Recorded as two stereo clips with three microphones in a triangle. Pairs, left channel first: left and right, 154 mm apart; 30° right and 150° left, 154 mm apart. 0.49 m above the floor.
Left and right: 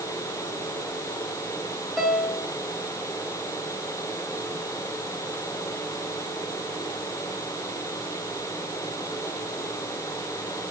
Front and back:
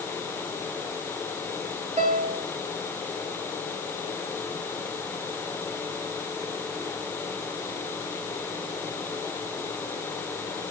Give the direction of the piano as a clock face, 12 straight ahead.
6 o'clock.